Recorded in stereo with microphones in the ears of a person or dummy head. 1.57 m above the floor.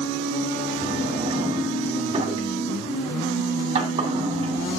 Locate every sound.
0.8 s a drawer: 35° right (ahead or behind), 2 m